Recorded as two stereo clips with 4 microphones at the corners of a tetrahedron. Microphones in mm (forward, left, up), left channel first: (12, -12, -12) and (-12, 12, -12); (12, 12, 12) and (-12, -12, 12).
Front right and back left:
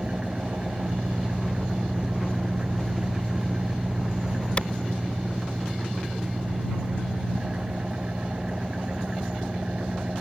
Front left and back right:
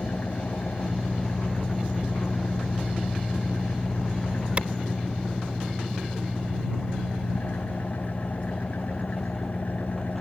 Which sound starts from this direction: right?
A clap, at 4.6 s.